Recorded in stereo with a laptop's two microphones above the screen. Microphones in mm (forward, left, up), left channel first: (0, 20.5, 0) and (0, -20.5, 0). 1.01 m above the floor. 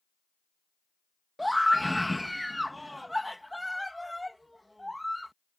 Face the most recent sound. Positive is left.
turn(degrees=0)  # may be behind; listen again after turning